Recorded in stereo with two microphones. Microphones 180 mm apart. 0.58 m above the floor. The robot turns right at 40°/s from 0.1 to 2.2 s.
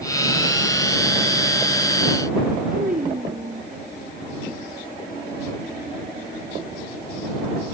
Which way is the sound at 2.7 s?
50° right (ahead or behind).